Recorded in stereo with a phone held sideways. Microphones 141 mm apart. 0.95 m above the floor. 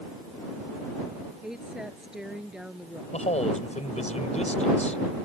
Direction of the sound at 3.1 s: 50° left (ahead or behind).